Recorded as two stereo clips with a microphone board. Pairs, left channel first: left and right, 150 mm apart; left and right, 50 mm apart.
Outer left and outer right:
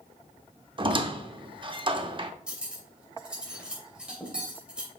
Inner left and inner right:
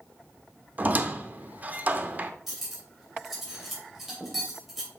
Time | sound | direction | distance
0.8 | a squeak | 35° right (ahead or behind) | 0.7 m
2.5 | cutlery clinking | 5° right (ahead or behind) | 2.5 m